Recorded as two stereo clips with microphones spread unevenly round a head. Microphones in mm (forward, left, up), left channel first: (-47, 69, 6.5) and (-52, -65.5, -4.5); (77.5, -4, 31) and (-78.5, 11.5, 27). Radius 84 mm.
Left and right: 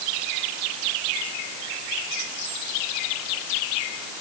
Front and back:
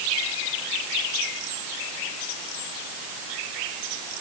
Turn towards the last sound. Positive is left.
No sound to turn to.